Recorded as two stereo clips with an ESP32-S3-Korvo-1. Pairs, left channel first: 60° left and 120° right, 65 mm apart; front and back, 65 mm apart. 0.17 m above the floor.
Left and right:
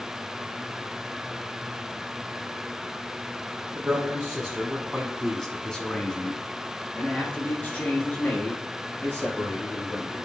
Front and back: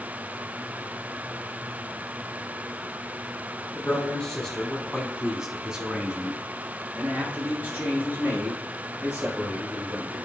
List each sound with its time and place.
3.8 s a man speaking: 65° right, 2.0 m; by 10.2 s 120° left, 5 m